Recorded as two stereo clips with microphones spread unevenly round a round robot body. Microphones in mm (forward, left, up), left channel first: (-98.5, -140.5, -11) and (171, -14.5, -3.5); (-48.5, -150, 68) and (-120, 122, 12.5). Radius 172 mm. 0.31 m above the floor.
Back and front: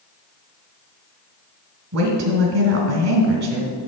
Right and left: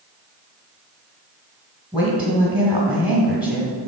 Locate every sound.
1.9 s a woman speaking: 35° left, 1.3 m